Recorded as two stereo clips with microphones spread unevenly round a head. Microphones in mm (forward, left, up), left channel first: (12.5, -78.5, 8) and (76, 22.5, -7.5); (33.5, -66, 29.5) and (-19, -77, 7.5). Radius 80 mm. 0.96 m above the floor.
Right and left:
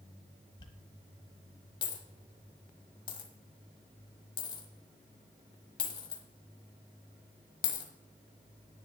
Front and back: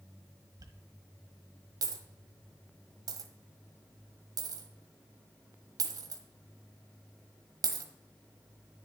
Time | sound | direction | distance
0.6 | a dropped coin | 165° right | 1.2 m